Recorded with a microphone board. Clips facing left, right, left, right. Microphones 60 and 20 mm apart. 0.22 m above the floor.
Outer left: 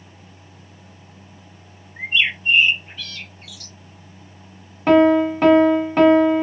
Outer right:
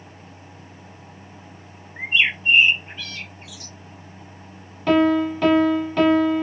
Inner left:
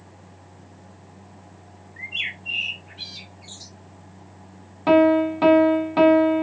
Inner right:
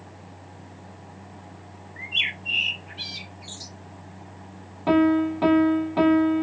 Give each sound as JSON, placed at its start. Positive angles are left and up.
{"t": 2.0, "sound": "a bird", "side_deg": -20, "distance_m": 0.7}
{"t": 4.9, "sound": "a piano", "side_deg": 35, "distance_m": 0.7}